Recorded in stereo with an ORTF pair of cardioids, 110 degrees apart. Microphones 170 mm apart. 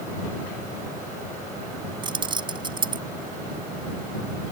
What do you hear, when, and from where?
2.0 s keys jangling: 30° right